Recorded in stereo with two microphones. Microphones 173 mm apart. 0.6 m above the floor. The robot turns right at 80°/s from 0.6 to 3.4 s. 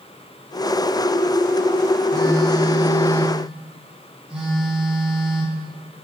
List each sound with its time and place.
2.1 s a phone buzzing: 85° left, 4 m; by 5.6 s 175° right, 4 m